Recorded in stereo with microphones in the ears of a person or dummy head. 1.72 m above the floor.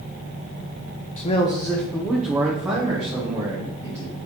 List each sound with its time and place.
1.2 s a man speaking: 40° left (ahead or behind), 0.5 m; by 4.2 s 20° right (ahead or behind), 2.5 m